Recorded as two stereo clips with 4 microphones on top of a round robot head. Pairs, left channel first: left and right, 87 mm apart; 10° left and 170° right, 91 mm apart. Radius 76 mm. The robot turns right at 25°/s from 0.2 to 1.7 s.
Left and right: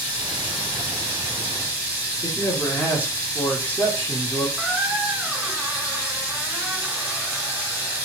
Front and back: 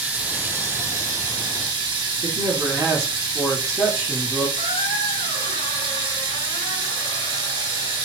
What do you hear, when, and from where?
0.0 s running water: 115° left, 1.5 m; by 8.1 s 150° left, 1.5 m
2.2 s a man speaking: 150° left, 1.3 m
4.6 s a squeak: 5° right, 1.1 m